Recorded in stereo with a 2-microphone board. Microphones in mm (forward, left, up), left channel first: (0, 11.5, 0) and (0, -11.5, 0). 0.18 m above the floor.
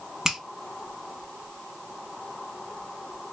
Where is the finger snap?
25° right (ahead or behind), 0.9 m.